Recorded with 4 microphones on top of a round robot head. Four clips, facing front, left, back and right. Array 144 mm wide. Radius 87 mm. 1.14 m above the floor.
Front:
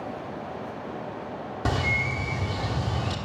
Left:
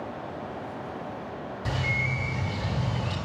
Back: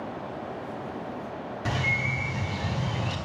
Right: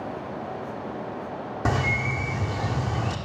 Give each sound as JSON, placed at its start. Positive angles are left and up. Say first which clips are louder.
{"t": 1.6, "sound": "a bird", "louder": "right 6 dB, front 3 dB", "azimuth_deg": -65, "distance_m": 1.4}